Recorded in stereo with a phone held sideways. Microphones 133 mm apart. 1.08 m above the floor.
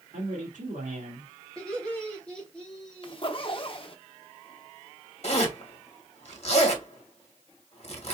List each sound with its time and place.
0.1 s a man speaking: 80° right, 1.6 m
1.6 s laughter: 5° left (ahead or behind), 3 m
3.0 s a zipper: 40° left (ahead or behind), 0.8 m
5.2 s a zipper: 50° left (ahead or behind), 1.3 m